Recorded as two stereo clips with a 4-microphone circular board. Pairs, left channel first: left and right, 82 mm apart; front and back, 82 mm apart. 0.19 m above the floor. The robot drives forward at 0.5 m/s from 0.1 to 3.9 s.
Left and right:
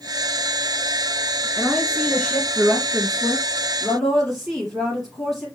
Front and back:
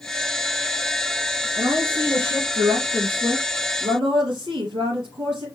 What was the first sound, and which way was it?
A woman speaking, 170° left.